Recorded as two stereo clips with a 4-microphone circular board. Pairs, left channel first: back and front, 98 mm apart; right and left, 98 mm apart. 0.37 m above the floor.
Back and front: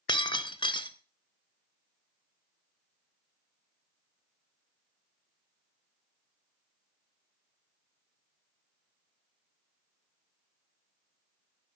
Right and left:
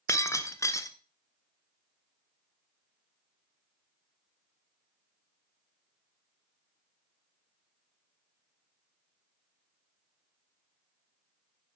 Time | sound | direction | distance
0.1 | breaking glass | 145° right | 0.8 m